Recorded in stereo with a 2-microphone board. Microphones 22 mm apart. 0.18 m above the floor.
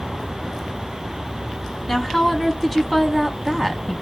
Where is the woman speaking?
10° left (ahead or behind), 1.0 m.